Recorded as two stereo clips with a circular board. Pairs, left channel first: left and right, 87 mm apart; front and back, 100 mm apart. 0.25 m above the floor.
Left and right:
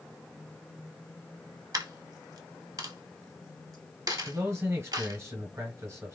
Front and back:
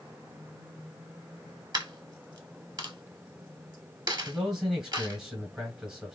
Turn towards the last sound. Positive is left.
turn(degrees=-105)